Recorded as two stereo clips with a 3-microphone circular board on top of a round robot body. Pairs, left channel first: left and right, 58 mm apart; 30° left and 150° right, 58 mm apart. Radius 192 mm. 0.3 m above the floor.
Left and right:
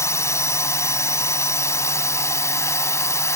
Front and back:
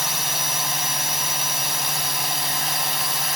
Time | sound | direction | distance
0.0 | a drone | 125° left | ?